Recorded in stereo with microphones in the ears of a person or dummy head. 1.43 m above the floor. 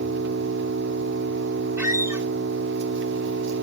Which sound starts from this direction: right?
An engine running, at 0.0 s.